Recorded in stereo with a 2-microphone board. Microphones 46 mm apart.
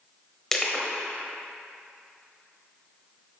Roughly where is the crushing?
Centre.